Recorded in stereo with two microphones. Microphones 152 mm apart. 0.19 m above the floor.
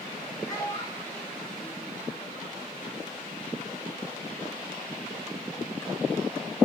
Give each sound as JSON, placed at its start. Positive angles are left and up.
{"t": 0.5, "sound": "a child speaking", "side_deg": 15, "distance_m": 8.0}